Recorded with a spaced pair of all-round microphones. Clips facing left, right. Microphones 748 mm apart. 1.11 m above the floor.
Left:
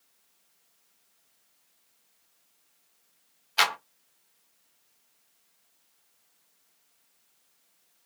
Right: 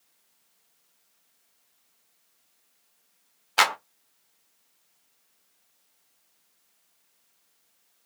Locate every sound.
3.6 s a clap: 70° right (ahead or behind), 1.0 m